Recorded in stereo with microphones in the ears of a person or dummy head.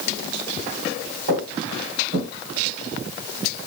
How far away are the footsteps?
About 3.5 m.